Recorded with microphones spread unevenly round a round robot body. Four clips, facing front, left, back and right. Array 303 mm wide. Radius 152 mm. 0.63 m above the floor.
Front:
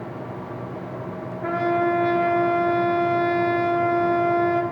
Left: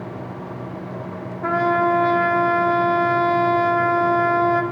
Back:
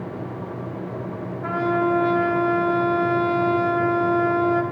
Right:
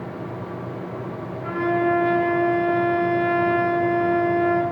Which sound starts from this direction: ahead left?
A trumpet, at 1.4 s.